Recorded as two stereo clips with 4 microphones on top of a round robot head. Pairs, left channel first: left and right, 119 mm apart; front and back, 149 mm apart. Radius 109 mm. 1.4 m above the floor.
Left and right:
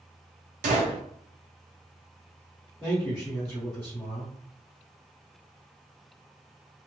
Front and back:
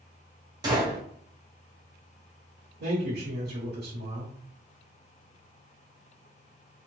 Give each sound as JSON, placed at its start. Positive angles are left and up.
{"t": 0.6, "sound": "a gunshot", "azimuth_deg": -110, "distance_m": 0.6}
{"t": 2.8, "sound": "a man speaking", "azimuth_deg": 175, "distance_m": 1.2}